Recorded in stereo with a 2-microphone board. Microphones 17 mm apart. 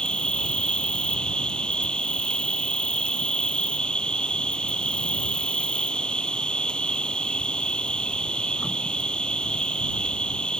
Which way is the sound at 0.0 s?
80° left.